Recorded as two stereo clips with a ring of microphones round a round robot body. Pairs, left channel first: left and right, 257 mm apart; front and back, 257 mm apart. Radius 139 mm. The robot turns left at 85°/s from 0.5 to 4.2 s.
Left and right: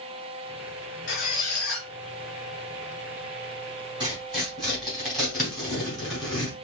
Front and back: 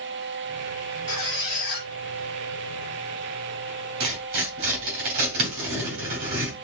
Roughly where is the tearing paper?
Behind.